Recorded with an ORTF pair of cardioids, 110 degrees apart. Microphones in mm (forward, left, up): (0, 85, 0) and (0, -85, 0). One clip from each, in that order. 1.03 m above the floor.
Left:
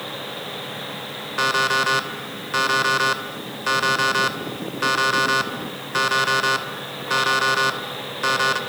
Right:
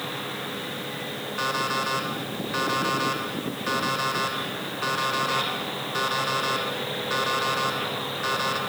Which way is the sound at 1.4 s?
40° left.